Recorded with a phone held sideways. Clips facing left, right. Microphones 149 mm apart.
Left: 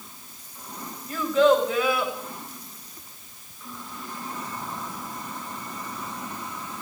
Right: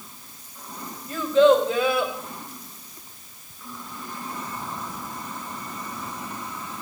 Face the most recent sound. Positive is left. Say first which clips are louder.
# right 3 dB
turn(degrees=-25)  # may be behind; listen again after turning